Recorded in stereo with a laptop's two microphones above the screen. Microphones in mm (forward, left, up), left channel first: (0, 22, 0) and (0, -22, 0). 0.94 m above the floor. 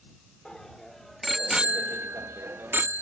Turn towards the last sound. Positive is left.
turn(degrees=-50)  # may be behind; listen again after turning